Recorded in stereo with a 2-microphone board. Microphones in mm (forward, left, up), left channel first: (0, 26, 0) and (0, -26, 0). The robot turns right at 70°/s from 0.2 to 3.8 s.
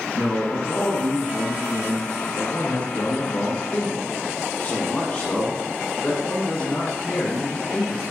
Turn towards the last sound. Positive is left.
turn(degrees=120)